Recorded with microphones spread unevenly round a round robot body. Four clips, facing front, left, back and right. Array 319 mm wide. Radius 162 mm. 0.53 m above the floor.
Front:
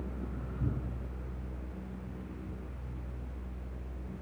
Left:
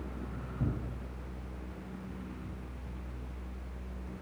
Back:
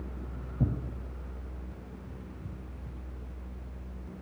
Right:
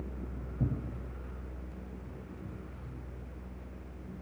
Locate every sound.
0.6 s tearing paper: 165° right, 4 m